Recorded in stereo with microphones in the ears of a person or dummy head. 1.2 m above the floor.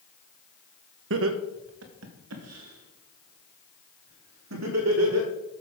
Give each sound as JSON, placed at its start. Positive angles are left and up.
{"t": 1.1, "sound": "laughter", "side_deg": -65, "distance_m": 1.1}